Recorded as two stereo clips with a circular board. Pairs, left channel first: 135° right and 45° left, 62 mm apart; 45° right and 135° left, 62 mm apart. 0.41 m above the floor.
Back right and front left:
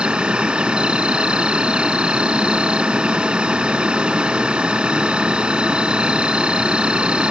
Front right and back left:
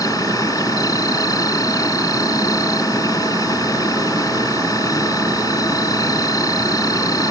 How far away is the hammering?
No hammering in this recording.